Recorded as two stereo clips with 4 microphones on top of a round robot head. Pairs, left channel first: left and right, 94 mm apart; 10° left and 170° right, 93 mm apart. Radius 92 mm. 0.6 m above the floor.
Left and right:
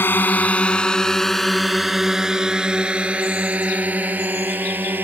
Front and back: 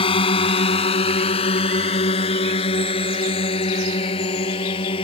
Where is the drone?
20° left; by 5.0 s 25° right.